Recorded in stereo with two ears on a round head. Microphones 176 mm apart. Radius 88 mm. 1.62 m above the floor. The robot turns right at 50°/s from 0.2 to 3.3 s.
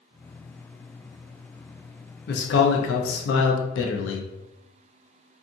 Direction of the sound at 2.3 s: 55° left.